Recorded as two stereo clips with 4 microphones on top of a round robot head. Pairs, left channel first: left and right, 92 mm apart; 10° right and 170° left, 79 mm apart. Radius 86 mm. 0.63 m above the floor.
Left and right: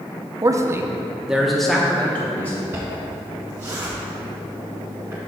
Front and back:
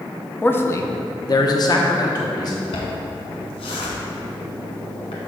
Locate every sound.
0.4 s a man speaking: 70° right, 0.6 m; by 2.6 s 20° left, 1.4 m
2.7 s a zipper: 15° right, 1.1 m